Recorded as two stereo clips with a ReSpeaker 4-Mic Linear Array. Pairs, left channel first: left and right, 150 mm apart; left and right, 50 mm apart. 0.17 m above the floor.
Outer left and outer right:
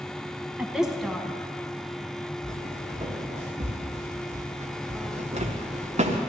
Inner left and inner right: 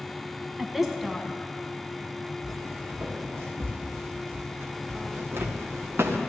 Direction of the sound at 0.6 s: 10° right (ahead or behind).